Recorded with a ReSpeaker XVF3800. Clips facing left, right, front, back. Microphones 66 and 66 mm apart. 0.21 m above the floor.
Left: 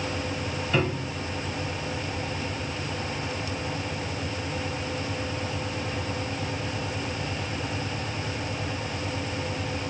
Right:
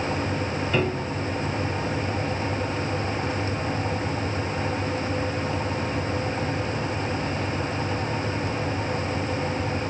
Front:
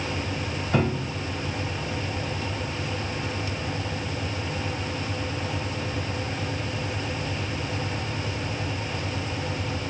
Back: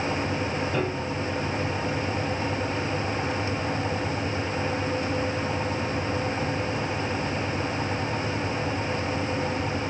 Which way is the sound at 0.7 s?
10° right.